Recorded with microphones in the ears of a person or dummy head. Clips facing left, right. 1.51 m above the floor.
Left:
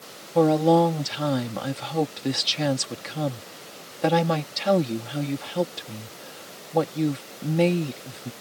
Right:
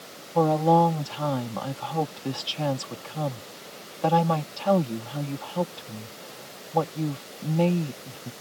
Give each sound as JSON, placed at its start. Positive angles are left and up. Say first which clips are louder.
{"t": 0.3, "sound": "a woman speaking", "louder": "left 3 dB", "side_deg": 30}